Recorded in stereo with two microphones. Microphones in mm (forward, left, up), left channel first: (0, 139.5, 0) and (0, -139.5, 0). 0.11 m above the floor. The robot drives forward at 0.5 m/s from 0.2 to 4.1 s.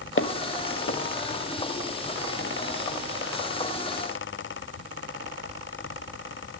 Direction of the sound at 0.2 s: 45° left (ahead or behind).